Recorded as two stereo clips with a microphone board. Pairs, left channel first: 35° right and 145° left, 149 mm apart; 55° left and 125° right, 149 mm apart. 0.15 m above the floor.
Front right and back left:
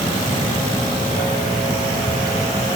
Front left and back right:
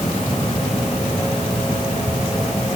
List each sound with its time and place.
Only background noise.